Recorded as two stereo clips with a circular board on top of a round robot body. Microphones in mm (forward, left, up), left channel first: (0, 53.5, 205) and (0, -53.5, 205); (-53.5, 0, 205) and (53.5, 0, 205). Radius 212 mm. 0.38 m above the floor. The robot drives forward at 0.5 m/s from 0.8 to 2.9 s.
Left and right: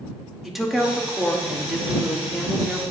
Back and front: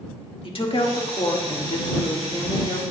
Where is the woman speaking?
Straight behind, 2 m.